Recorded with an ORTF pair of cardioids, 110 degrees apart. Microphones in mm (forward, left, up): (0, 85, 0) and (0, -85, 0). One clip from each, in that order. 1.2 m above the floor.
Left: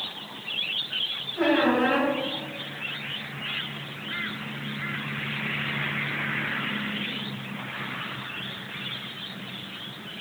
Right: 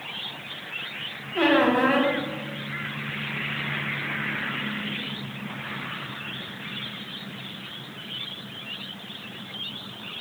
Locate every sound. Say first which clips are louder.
1.4 s a squeak: right 3 dB; 55° right, 0.7 m